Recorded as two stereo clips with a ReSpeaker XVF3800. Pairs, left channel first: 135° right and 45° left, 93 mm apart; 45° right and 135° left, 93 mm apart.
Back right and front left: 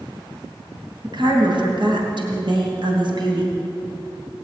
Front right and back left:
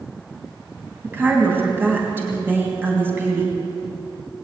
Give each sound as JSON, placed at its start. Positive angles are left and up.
{"t": 1.0, "sound": "a woman speaking", "azimuth_deg": 70, "distance_m": 3.0}